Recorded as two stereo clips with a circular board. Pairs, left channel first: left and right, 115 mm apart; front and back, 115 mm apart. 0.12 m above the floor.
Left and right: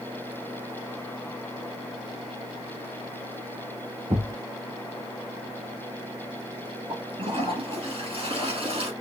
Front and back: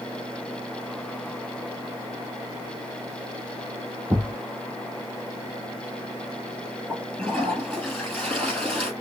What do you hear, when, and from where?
4.1 s a thud: 105° right, 1.6 m
6.9 s a toilet flushing: 85° right, 2.5 m